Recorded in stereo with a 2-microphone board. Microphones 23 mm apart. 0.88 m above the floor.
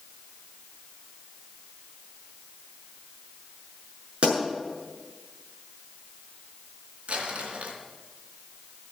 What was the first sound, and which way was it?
A pop, 55° right (ahead or behind).